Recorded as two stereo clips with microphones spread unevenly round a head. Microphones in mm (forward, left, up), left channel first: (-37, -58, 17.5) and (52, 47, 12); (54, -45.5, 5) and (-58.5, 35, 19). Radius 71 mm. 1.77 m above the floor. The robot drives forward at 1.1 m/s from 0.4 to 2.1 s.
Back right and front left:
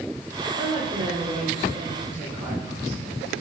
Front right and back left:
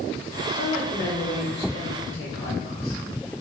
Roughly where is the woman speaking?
Ahead.